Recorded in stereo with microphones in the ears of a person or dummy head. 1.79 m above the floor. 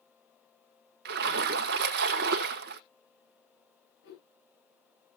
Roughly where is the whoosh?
Left.